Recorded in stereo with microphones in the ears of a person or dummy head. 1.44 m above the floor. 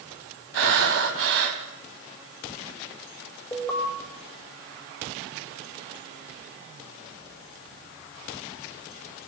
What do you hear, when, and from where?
0.5 s breathing: 65° right (ahead or behind), 3.5 m
3.5 s an alarm: 15° left (ahead or behind), 5.5 m